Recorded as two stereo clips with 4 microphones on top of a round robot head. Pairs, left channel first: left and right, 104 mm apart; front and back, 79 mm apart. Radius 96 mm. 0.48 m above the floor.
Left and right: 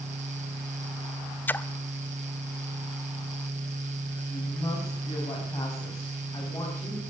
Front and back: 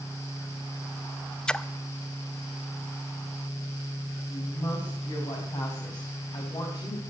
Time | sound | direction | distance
1.5 | a splash | 60° left | 0.6 m
4.3 | a woman speaking | 25° left | 4.5 m